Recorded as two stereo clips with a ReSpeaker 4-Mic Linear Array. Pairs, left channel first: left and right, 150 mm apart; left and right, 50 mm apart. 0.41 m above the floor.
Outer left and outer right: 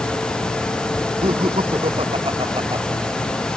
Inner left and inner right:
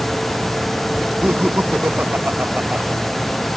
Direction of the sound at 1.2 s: 40° right (ahead or behind).